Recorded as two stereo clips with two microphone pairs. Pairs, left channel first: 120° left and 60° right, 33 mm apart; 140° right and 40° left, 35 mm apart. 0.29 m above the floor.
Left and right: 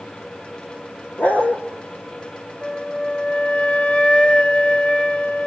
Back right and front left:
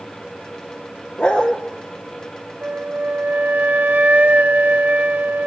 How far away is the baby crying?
No baby crying in this recording.